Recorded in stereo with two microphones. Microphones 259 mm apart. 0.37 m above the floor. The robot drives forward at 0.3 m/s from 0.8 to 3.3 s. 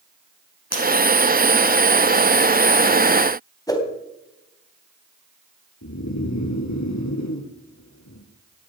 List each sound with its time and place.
0.7 s breaking glass: 65° left (ahead or behind), 4 m
3.7 s a whoosh: 15° left (ahead or behind), 2.5 m
5.8 s snoring: 80° left, 1.9 m